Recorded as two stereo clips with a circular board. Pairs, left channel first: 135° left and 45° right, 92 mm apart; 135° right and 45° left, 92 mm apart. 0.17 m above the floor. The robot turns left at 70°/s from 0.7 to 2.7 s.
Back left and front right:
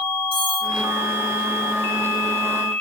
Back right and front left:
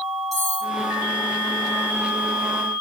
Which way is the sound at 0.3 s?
45° right.